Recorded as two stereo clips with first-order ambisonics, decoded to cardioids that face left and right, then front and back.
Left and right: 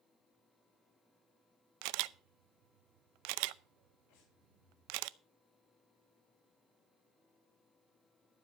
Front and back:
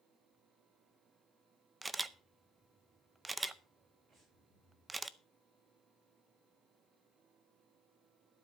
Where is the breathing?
115° left, 5.5 m.